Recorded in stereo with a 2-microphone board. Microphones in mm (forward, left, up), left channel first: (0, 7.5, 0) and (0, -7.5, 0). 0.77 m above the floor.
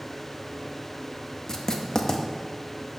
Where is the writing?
35° left (ahead or behind), 0.6 m.